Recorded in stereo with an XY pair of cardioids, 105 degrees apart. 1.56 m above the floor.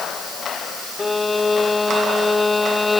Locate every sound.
1.0 s a violin: 20° left